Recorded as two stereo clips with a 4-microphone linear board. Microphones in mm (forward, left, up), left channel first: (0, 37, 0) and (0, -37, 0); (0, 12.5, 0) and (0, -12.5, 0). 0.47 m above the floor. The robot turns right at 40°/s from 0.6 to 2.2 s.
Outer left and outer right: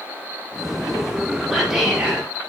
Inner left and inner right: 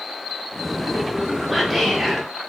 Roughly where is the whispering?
Centre.